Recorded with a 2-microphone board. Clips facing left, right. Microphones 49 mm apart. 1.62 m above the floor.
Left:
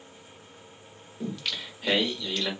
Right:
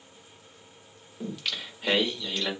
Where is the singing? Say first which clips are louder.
Left 1 dB; 5° right (ahead or behind), 1.1 m.